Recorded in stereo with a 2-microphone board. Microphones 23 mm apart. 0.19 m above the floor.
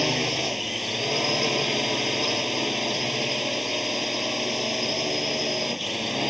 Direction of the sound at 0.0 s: 5° right (ahead or behind).